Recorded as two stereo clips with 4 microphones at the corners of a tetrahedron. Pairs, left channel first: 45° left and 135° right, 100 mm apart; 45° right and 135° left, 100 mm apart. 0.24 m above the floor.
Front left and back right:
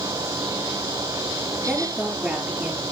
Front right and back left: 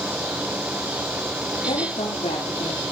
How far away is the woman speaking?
About 6.5 m.